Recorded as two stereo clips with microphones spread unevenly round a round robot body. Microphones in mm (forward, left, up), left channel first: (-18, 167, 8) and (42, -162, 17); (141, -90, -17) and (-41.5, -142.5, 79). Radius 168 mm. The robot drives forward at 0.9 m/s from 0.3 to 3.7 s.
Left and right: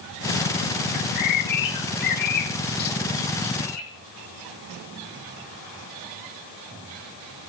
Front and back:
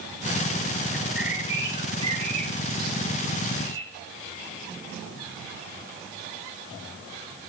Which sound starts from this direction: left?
A bird, at 0.9 s.